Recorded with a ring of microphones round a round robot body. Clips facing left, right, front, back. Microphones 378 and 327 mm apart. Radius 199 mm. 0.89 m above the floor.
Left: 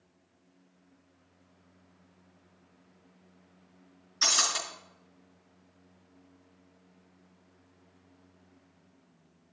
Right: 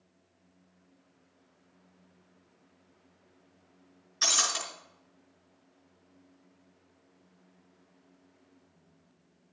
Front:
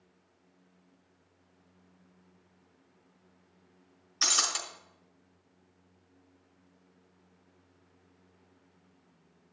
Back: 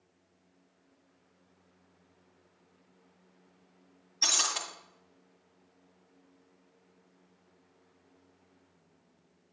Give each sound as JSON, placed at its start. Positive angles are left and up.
{"t": 4.2, "sound": "breaking glass", "azimuth_deg": -5, "distance_m": 5.0}